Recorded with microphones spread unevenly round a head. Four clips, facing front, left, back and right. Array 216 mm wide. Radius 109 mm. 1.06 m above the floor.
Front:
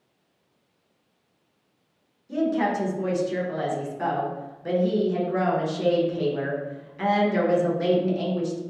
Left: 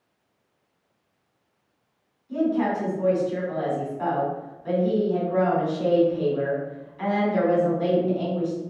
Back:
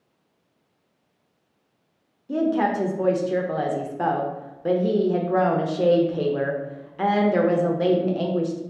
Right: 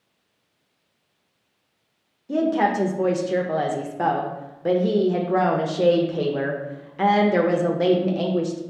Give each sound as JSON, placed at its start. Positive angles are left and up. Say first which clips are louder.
{"t": 2.3, "sound": "a woman speaking", "louder": "right 3 dB, back 2 dB", "azimuth_deg": -120, "distance_m": 0.6}